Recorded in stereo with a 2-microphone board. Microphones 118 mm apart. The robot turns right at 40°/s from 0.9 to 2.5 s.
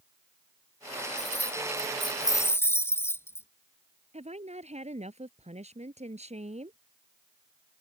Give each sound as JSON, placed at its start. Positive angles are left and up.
{"t": 1.2, "sound": "keys jangling", "azimuth_deg": 105}
{"t": 4.1, "sound": "a woman speaking", "side_deg": -70}